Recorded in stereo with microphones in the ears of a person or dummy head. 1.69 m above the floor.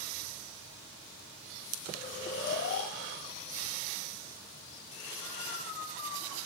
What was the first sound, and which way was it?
Snoring, 40° left (ahead or behind).